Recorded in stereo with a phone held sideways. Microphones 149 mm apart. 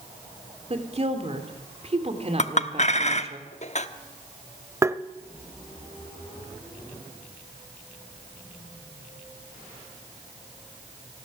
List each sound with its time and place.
0.7 s a woman speaking: 45° right (ahead or behind), 3 m
2.4 s a clink: 50° left (ahead or behind), 0.9 m
4.8 s tapping: 20° right (ahead or behind), 0.6 m